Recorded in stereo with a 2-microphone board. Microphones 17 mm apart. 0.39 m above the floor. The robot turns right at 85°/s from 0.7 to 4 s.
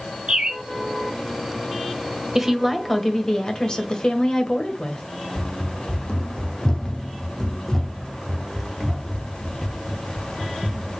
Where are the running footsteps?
70° left (ahead or behind), 1.1 m; by 11.0 s 25° right (ahead or behind), 2.5 m.